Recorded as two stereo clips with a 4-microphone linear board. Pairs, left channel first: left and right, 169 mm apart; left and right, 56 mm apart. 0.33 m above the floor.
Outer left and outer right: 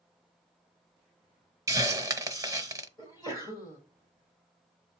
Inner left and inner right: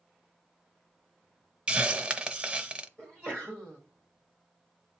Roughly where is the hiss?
Centre.